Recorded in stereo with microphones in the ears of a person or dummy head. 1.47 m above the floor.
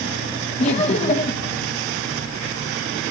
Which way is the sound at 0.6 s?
40° left (ahead or behind).